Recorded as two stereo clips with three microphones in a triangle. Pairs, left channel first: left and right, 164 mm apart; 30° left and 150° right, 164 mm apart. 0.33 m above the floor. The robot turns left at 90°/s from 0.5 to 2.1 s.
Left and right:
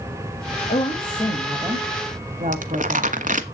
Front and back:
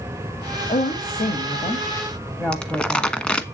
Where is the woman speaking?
70° left, 1.8 m; by 3.2 s 55° right, 1.8 m.